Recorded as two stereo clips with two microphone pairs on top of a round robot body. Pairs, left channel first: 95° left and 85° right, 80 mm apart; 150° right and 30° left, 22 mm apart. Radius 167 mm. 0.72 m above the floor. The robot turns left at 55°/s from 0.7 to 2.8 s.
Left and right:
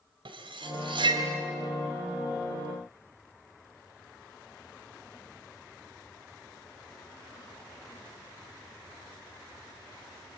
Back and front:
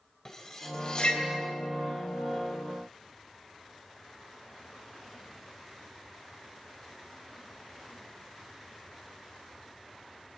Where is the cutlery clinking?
80° right, 3 m; by 1.2 s 110° right, 3 m.